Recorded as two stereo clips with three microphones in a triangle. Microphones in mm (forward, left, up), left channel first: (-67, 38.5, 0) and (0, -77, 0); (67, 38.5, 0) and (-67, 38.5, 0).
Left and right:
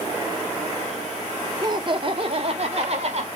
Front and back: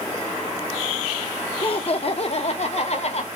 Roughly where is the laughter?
Ahead.